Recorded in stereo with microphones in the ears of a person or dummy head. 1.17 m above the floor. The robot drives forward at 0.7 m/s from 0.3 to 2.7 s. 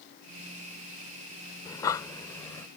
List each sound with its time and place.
1.6 s breathing: 20° left (ahead or behind); by 2.7 s 15° left (ahead or behind)